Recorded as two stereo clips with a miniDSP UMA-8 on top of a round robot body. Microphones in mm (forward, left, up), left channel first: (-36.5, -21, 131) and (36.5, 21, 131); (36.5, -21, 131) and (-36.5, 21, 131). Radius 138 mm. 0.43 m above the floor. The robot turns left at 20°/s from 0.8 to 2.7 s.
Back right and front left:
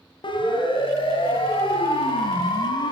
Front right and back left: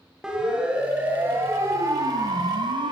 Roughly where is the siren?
Behind right.